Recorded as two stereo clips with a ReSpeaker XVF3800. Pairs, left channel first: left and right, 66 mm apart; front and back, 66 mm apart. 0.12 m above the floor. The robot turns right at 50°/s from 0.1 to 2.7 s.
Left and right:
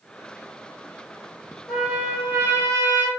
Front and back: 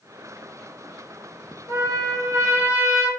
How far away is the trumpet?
About 1.0 m.